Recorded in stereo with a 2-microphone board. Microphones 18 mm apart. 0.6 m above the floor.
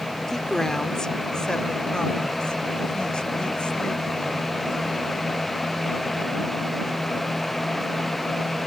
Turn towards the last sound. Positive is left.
turn(degrees=65)  # may be behind; listen again after turning